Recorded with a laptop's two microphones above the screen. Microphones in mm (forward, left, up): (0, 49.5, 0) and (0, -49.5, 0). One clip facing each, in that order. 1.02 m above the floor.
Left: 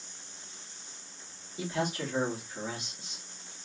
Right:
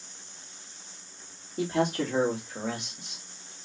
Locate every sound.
1.6 s a man speaking: 50° right (ahead or behind), 2 m; by 3.2 s 70° right (ahead or behind), 2 m